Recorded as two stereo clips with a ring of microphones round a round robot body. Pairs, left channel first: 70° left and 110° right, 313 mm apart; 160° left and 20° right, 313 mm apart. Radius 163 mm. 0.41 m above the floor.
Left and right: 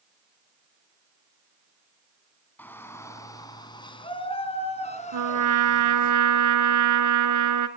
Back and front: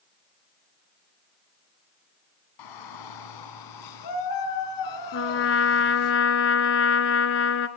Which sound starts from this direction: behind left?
A shout, at 2.6 s.